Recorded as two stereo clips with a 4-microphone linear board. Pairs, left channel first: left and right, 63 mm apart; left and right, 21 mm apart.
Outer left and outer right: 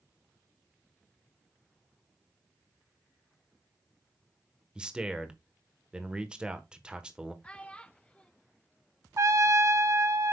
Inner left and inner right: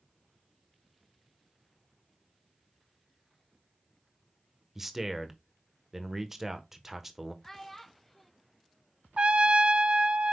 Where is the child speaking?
15° left (ahead or behind), 0.6 m.